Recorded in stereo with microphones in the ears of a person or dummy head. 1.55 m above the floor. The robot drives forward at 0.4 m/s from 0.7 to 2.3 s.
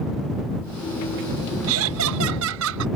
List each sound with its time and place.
1.7 s laughter: 90° right; by 2.9 s 80° right